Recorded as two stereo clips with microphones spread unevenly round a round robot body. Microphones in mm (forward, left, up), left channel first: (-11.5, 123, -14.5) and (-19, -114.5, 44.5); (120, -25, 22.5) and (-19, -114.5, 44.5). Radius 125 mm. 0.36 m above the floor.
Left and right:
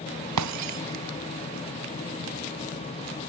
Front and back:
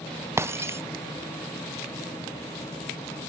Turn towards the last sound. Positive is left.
turn(degrees=-75)